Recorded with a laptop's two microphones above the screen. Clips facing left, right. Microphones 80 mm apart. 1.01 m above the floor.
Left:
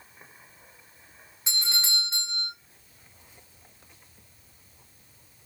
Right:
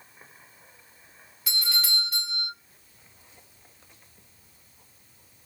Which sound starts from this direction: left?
A doorbell, at 1.5 s.